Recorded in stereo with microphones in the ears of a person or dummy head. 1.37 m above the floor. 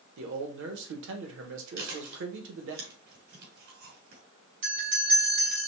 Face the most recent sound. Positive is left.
turn(degrees=-55)  # may be behind; listen again after turning